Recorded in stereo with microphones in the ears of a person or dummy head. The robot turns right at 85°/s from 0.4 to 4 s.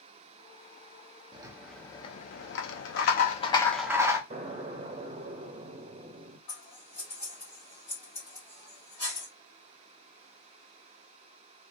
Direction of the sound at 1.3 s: 30° right.